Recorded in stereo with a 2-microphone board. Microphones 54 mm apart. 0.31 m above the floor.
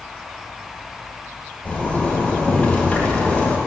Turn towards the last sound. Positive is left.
turn(degrees=30)  # may be behind; listen again after turning